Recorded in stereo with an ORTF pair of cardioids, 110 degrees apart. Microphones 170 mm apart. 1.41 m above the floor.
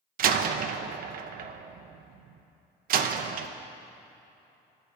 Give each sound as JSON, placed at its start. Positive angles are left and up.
{"t": 0.2, "sound": "a door slam", "azimuth_deg": -65, "distance_m": 1.0}